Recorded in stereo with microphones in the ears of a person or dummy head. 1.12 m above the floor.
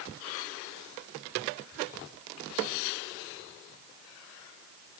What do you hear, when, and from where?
Only background noise.